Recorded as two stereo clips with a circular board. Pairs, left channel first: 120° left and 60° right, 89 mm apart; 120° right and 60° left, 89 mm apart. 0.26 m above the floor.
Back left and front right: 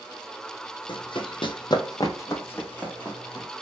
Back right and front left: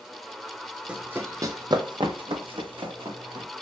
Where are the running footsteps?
135° left, 0.6 m; by 3.5 s 40° left, 1.2 m.